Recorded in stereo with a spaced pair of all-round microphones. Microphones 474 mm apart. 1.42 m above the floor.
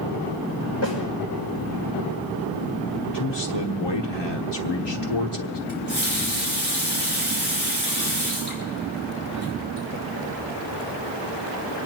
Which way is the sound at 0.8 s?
30° left (ahead or behind).